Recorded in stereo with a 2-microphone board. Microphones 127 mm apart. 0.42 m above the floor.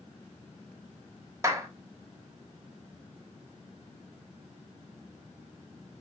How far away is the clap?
About 1.2 m.